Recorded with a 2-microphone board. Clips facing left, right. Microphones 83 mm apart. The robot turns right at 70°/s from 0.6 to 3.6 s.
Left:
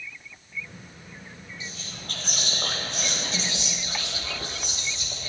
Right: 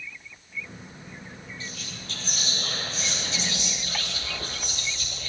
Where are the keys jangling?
I don't hear keys jangling.